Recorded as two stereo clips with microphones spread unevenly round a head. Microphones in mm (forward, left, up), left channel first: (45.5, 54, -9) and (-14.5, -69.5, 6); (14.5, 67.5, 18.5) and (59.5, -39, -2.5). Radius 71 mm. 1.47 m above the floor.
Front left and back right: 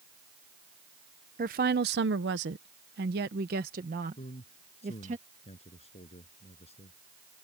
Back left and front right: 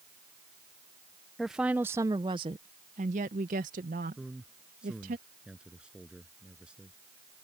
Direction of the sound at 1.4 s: 155° right.